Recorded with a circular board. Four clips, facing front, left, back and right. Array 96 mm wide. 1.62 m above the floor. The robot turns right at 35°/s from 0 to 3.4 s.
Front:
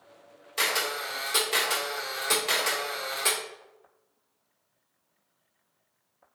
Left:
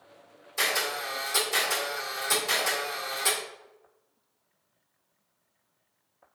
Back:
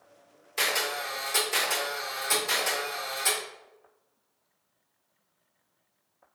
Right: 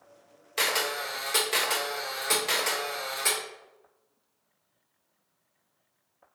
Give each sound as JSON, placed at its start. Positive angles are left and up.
{"t": 0.6, "sound": "a camera shutter", "azimuth_deg": -90, "distance_m": 1.7}